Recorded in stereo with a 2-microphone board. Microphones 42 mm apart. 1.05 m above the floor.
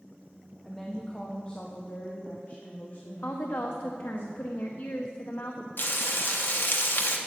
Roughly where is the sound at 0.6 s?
Centre.